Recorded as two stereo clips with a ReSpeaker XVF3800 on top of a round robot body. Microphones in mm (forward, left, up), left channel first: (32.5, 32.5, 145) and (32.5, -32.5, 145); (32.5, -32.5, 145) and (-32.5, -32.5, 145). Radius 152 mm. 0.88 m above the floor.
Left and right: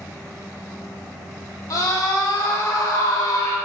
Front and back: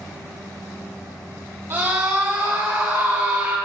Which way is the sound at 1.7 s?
120° left.